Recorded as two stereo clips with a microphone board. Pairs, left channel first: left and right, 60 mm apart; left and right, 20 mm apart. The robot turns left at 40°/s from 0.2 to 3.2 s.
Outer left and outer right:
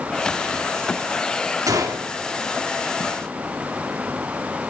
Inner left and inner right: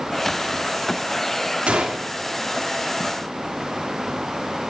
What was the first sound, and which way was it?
A gunshot, 80° right.